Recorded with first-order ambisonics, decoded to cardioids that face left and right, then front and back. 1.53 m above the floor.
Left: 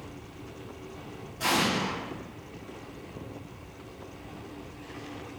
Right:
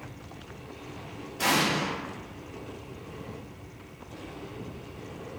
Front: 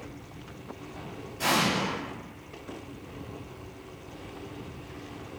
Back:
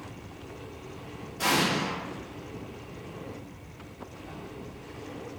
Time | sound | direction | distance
1.4 | an explosion | 105° right | 1.1 m